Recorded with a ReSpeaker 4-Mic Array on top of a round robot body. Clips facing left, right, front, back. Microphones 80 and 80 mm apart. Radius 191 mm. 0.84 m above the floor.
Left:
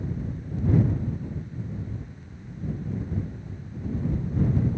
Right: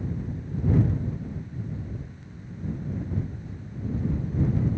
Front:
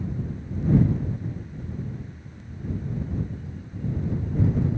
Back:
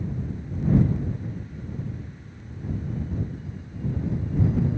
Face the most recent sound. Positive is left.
No sound to turn to.